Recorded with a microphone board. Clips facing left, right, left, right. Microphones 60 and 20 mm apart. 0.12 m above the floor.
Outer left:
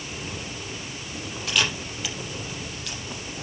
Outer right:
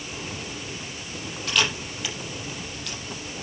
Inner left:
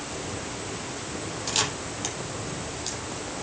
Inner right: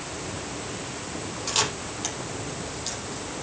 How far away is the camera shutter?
About 4.5 m.